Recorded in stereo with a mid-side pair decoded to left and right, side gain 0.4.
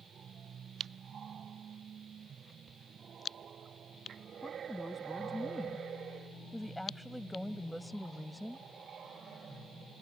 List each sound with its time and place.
4.4 s a woman speaking: 15° left; by 8.7 s 5° left